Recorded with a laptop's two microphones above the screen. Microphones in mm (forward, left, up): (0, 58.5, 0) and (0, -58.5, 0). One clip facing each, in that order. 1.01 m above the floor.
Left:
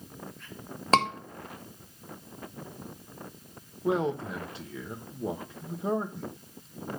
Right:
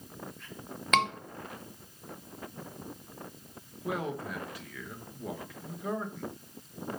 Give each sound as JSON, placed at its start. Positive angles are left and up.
{"t": 0.9, "sound": "a scream", "side_deg": 35, "distance_m": 1.0}
{"t": 3.8, "sound": "a man speaking", "side_deg": 25, "distance_m": 1.2}